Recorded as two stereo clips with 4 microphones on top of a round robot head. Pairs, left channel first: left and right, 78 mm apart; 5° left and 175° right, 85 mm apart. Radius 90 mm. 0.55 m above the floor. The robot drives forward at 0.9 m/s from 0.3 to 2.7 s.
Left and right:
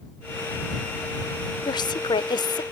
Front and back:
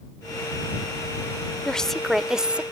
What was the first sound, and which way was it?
A woman speaking, 85° left.